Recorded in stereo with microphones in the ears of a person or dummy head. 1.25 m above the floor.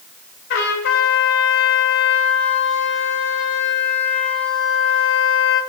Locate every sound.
0.5 s a trumpet: 65° left (ahead or behind), 3 m